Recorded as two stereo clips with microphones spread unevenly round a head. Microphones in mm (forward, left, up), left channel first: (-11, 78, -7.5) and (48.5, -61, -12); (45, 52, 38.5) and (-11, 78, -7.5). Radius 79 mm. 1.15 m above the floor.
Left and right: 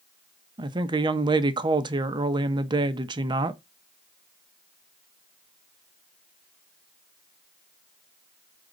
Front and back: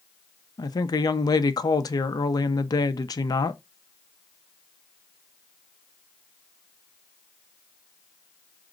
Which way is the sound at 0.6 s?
5° right.